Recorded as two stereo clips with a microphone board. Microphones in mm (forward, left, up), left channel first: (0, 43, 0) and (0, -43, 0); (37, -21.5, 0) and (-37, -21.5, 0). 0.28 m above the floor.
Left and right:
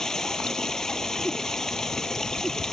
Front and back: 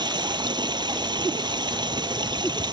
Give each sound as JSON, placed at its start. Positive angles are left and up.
{"t": 0.0, "sound": "running water", "azimuth_deg": 175}